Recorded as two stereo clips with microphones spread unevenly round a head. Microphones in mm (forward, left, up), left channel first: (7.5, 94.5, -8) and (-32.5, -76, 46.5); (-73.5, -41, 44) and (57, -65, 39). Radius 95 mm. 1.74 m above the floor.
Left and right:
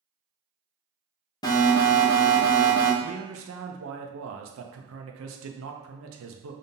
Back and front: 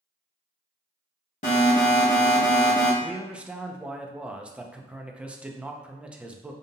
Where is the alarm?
155° left, 1.1 m.